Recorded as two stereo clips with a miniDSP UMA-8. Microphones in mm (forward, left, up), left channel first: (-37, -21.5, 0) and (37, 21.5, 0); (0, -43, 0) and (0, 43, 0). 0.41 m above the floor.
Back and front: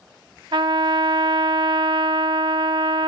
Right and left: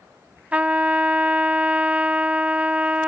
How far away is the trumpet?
About 0.5 m.